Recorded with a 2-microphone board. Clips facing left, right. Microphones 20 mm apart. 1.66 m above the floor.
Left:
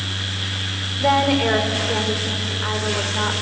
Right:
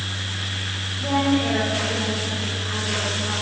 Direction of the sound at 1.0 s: 75° left (ahead or behind).